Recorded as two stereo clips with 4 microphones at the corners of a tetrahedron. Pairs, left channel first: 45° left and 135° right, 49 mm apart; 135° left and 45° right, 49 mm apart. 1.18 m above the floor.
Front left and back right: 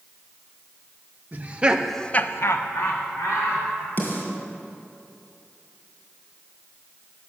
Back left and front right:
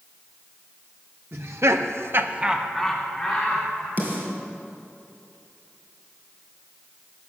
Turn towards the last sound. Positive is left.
turn(degrees=5)